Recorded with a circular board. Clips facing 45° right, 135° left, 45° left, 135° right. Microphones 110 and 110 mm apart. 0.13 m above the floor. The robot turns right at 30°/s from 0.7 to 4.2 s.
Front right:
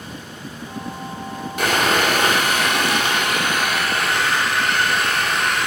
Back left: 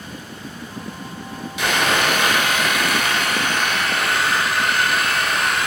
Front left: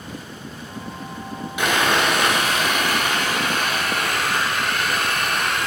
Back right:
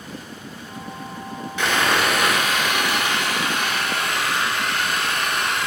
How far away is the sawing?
About 0.6 m.